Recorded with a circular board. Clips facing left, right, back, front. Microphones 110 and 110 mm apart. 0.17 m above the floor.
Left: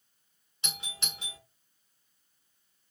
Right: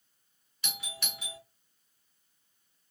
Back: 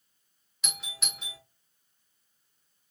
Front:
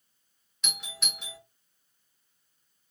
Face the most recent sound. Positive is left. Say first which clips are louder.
# even, front 1 dB
turn(degrees=95)